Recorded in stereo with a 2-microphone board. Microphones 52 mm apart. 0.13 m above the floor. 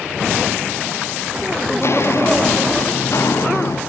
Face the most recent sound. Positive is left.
turn(degrees=75)  # may be behind; listen again after turning